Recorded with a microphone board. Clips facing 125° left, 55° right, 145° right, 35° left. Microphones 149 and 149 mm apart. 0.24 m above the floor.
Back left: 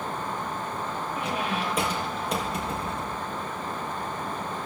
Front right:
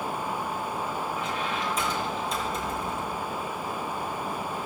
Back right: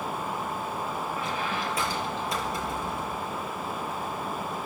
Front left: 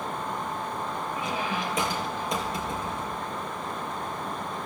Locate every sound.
1.1 s a squeak: 105° left, 4 m